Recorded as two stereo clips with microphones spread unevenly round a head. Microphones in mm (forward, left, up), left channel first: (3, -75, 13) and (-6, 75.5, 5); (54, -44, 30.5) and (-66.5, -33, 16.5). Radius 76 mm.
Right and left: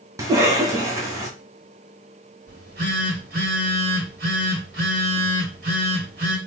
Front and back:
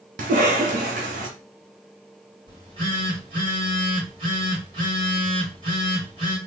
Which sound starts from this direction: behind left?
A phone buzzing, at 2.5 s.